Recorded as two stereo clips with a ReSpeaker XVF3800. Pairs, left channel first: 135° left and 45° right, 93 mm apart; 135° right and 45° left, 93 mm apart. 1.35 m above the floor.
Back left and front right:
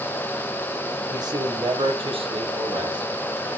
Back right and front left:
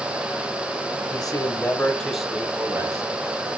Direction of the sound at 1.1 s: 90° right.